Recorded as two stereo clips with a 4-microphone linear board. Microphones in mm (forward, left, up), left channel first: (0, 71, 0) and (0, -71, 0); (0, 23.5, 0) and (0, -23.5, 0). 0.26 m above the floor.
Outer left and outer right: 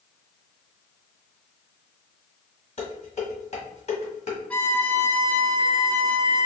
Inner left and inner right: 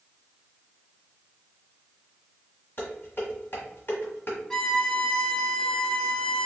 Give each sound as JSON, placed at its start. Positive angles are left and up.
{"t": 2.8, "sound": "dishes clattering", "side_deg": 50, "distance_m": 1.3}
{"t": 4.5, "sound": "a violin", "side_deg": 10, "distance_m": 0.6}